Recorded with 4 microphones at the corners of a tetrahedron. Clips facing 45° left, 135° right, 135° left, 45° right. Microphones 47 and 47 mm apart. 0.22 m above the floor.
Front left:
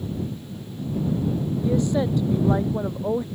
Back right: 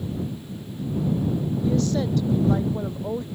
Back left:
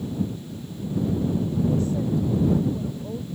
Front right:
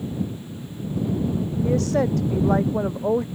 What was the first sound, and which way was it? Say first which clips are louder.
A woman speaking: front left 2 dB, front right 3 dB; 25° right.